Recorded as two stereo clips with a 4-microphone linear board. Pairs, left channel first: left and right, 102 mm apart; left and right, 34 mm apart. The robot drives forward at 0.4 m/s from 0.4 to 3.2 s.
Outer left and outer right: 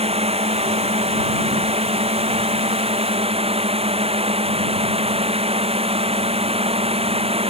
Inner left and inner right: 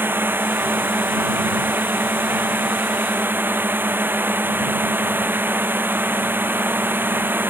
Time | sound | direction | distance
0.0 | a drone | 75° right (ahead or behind) | ?